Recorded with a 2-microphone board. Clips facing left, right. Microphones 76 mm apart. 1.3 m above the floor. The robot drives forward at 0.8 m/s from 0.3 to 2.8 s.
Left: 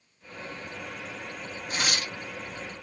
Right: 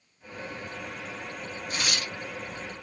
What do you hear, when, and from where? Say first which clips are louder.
1.7 s tearing paper: left 2 dB; 45° left (ahead or behind), 1.1 m; by 2.1 s 35° left (ahead or behind), 1.3 m